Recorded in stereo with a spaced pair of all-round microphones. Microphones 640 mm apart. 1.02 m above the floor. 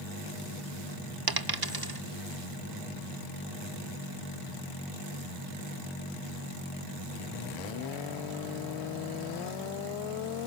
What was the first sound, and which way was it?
A dropped coin, 35° right (ahead or behind).